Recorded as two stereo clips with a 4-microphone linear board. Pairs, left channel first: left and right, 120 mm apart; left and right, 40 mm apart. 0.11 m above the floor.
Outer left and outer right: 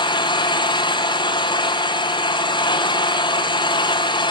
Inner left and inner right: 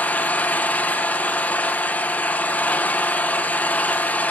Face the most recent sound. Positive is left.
turn(degrees=40)  # may be behind; listen again after turning